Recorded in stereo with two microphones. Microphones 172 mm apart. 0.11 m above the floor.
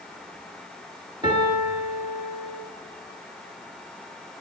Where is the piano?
30° right (ahead or behind), 1.4 m.